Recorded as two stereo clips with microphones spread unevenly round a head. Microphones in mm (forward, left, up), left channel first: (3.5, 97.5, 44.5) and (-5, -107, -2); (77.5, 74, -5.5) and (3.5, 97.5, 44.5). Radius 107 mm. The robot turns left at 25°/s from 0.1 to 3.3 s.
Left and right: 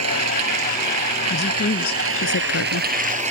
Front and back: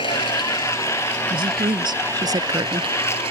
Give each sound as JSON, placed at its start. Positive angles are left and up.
{"t": 0.0, "sound": "running water", "azimuth_deg": -75}
{"t": 1.3, "sound": "a woman speaking", "azimuth_deg": 150}